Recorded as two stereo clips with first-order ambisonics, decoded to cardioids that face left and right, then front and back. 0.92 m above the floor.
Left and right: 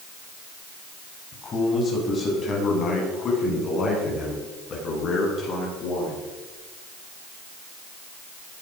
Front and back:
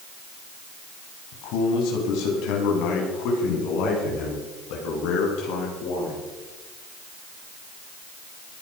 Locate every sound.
1.3 s a man speaking: 20° left, 5 m; by 6.2 s 30° left, 11.5 m